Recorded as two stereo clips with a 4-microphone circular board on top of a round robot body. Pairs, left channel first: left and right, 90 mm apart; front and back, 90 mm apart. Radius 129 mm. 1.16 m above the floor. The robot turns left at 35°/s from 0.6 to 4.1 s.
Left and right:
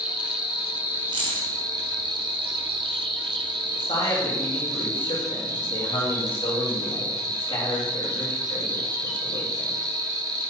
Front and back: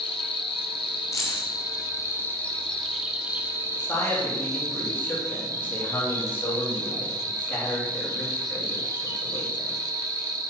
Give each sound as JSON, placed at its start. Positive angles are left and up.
{"t": 0.0, "sound": "an insect", "azimuth_deg": -10, "distance_m": 1.2}
{"t": 1.1, "sound": "keys jangling", "azimuth_deg": -60, "distance_m": 0.9}
{"t": 3.8, "sound": "a man speaking", "azimuth_deg": 80, "distance_m": 3.5}